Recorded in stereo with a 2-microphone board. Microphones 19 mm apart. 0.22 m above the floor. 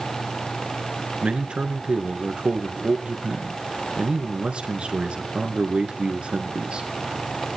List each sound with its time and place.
1.2 s a man speaking: 65° right (ahead or behind), 3 m